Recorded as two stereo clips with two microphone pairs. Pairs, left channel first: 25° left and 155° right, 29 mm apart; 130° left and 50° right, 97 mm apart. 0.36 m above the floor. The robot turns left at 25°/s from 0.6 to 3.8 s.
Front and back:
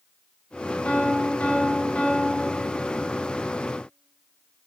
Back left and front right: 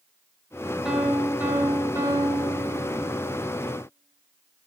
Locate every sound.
0.8 s a piano: 25° left, 2 m; by 3.2 s 35° right, 2 m